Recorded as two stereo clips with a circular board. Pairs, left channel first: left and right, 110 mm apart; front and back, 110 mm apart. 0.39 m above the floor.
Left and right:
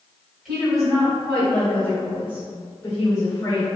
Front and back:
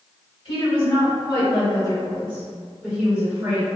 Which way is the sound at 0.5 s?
Straight ahead.